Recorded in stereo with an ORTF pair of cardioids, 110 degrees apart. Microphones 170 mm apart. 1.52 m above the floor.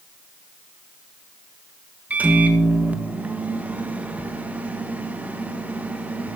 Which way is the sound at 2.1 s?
10° right.